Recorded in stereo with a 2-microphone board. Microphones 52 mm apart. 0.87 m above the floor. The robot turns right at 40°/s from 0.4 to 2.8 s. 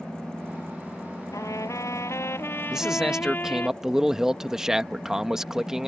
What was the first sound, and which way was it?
A trumpet, 80° left.